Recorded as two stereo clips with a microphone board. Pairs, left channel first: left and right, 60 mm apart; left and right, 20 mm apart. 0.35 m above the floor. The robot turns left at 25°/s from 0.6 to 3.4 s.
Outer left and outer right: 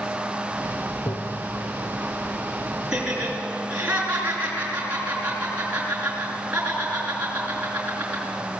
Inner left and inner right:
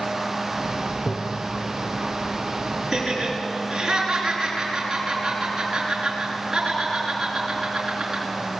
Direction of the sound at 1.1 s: 55° left (ahead or behind).